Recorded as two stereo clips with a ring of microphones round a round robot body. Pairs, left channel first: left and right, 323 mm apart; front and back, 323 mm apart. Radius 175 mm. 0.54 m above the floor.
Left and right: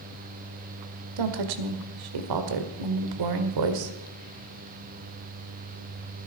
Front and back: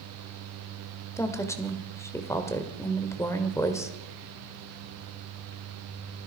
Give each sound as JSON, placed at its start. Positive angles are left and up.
{"t": 1.2, "sound": "a woman speaking", "azimuth_deg": -80, "distance_m": 1.9}